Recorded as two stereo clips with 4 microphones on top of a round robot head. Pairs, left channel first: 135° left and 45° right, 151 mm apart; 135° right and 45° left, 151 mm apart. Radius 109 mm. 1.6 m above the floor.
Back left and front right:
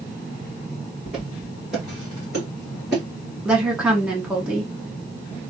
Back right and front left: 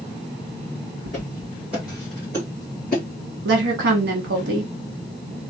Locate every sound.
1.1 s footsteps: 40° left, 1.6 m; by 3.0 s 130° right, 1.7 m
3.5 s a woman speaking: 35° left, 0.9 m